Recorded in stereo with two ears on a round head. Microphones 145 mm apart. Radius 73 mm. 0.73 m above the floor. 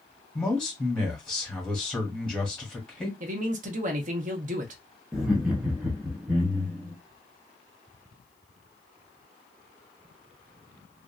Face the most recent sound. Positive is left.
turn(degrees=-5)  # may be behind; listen again after turning